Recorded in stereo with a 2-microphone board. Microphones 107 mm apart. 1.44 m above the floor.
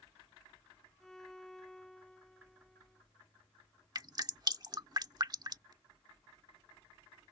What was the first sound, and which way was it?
A violin, 5° left (ahead or behind).